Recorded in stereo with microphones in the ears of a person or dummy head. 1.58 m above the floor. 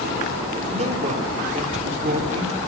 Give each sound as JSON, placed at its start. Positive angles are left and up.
{"t": 0.7, "sound": "a man speaking", "side_deg": -30, "distance_m": 5.5}